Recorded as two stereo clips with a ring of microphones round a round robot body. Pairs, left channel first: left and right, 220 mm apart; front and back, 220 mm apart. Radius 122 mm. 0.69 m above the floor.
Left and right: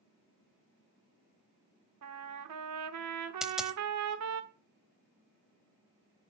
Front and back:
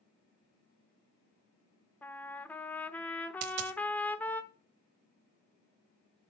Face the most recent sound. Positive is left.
turn(degrees=-175)